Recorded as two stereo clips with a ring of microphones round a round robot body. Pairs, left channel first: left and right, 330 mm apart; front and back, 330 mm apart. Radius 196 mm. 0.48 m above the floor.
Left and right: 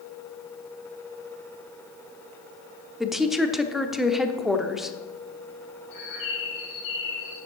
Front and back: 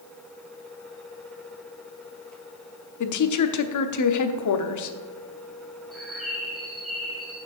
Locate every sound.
3.0 s a woman speaking: straight ahead, 1.0 m
5.9 s a bird: 90° left, 2.5 m